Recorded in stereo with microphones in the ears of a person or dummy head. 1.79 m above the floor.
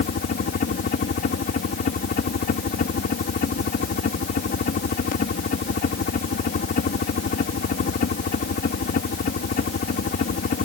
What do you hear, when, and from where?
0.0 s a helicopter: 50° left (ahead or behind)